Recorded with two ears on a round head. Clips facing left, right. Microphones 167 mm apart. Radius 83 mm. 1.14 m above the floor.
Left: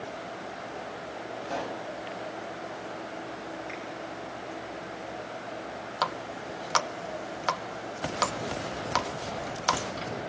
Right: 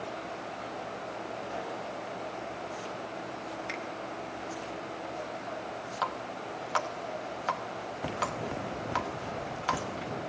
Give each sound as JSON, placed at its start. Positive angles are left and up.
{"t": 1.4, "sound": "a pop", "side_deg": 75, "distance_m": 2.5}
{"t": 3.7, "sound": "a finger snap", "side_deg": -75, "distance_m": 9.5}
{"t": 6.0, "sound": "a running tap", "side_deg": 55, "distance_m": 0.8}